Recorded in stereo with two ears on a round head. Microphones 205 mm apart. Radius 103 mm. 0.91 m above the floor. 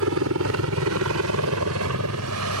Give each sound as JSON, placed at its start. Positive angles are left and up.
{"t": 0.0, "sound": "a helicopter", "side_deg": -65}